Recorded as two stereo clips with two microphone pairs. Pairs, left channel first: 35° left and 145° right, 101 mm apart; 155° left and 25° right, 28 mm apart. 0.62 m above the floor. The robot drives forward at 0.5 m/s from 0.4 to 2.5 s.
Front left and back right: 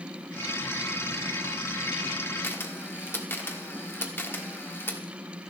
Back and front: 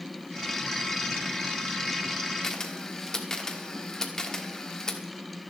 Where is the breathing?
No breathing in this recording.